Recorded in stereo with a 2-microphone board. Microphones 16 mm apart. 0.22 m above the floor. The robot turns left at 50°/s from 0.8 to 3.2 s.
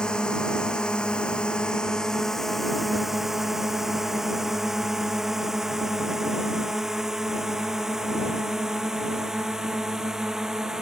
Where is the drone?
70° left (ahead or behind); by 10.8 s 40° right (ahead or behind).